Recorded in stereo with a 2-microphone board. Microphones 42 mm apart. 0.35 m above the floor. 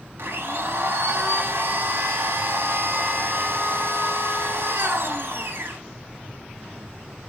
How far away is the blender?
About 0.6 m.